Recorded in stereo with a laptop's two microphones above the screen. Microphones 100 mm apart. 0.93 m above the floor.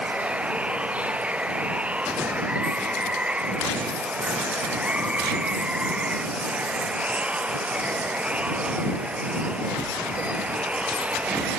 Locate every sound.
0.0 s running water: 10° right (ahead or behind)